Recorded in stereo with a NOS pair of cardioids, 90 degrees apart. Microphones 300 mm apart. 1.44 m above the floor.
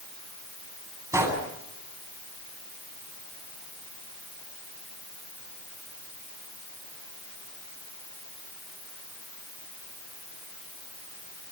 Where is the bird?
No bird in this recording.